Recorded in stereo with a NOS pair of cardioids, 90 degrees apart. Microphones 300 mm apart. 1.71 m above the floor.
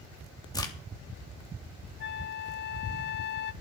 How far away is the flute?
About 0.6 m.